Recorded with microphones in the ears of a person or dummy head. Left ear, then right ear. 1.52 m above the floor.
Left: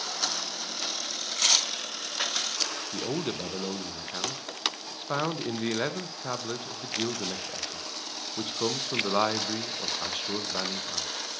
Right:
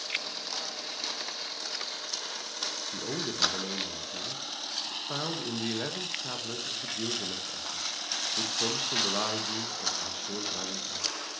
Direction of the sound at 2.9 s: 35° left (ahead or behind).